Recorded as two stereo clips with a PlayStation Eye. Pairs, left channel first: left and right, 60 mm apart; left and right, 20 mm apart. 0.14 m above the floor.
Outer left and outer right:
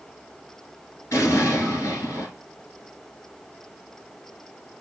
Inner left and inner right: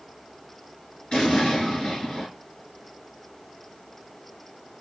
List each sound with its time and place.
1.1 s an explosion: 55° left (ahead or behind), 1.5 m